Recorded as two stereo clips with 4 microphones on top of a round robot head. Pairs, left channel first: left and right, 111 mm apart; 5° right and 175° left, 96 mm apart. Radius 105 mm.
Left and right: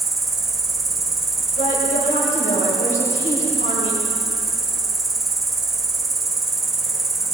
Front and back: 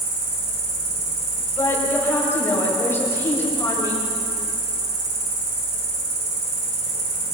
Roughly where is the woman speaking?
Ahead left.